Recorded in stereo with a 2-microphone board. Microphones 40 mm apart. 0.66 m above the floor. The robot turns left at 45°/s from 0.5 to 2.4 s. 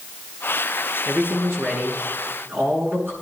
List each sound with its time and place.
1.1 s a man speaking: 55° right, 7 m; by 3.1 s 115° right, 7 m